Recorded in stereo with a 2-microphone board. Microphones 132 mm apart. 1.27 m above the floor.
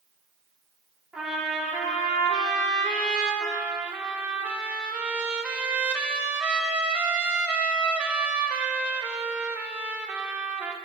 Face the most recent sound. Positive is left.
turn(degrees=-10)  # may be behind; listen again after turning